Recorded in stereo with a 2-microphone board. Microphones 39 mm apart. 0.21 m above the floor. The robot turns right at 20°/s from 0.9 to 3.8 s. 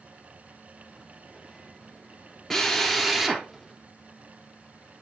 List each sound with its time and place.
2.5 s a drill: 5° left (ahead or behind), 1.4 m; by 3.5 s 10° right (ahead or behind), 1.4 m